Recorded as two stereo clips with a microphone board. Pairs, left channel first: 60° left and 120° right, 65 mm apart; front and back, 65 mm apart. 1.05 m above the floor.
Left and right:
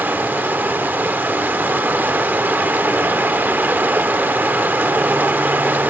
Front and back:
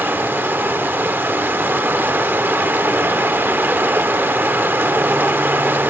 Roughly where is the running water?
Behind right.